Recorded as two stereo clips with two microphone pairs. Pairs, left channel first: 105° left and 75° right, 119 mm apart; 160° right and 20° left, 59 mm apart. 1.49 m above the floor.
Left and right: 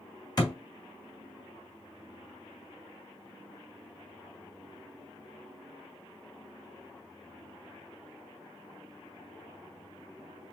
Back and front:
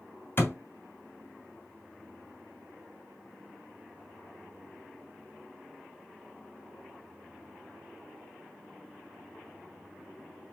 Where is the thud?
155° left, 2.5 m.